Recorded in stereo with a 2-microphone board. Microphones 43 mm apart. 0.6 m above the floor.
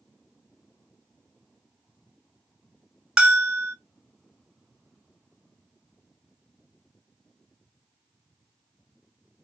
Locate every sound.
3.2 s a bell: 20° right (ahead or behind), 0.7 m